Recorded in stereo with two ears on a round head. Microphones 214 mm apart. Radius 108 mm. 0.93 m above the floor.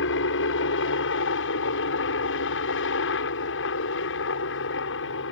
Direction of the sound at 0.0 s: 55° left (ahead or behind).